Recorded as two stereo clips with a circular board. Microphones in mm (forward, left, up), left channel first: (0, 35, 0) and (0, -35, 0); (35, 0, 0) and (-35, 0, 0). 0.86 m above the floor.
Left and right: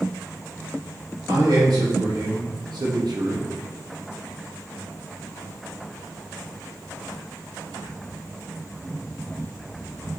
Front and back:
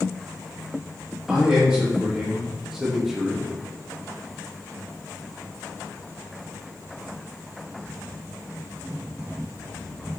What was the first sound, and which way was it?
A man speaking, 100° right.